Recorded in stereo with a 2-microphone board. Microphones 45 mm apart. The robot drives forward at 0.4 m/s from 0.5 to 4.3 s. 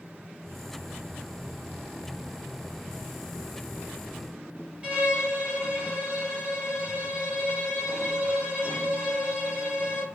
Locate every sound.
4.8 s a violin: 20° right (ahead or behind), 3 m